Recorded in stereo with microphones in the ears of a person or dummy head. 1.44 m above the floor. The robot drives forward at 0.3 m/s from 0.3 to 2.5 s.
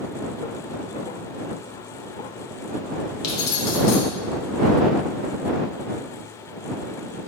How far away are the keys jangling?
About 0.9 m.